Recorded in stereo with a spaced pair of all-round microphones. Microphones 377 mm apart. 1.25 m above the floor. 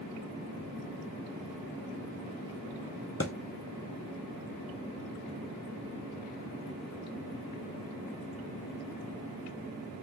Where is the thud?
40° left (ahead or behind), 0.7 m.